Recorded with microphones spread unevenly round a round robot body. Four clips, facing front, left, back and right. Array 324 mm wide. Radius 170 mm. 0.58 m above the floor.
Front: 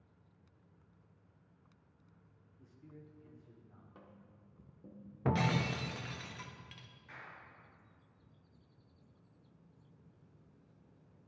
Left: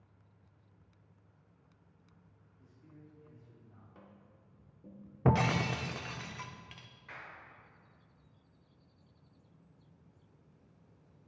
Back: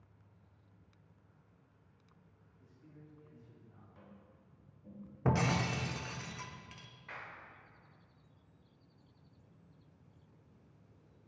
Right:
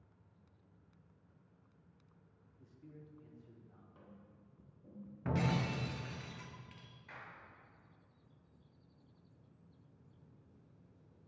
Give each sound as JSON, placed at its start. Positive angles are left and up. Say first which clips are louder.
{"t": 2.6, "sound": "a man speaking", "louder": "right 1 dB, front 3 dB", "azimuth_deg": -45, "distance_m": 1.1}
{"t": 4.0, "sound": "tapping", "louder": "left 1 dB, even", "azimuth_deg": 35, "distance_m": 1.3}
{"t": 5.2, "sound": "breaking glass", "louder": "left 6 dB, back 1 dB", "azimuth_deg": 95, "distance_m": 0.7}
{"t": 7.1, "sound": "a clap", "louder": "left 3 dB, back 4 dB", "azimuth_deg": 155, "distance_m": 2.0}